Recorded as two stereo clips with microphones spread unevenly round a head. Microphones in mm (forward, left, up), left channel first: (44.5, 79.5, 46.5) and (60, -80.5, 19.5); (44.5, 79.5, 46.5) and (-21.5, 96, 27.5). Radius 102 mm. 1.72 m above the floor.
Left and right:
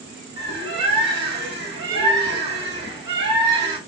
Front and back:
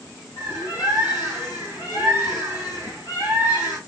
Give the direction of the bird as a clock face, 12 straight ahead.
2 o'clock.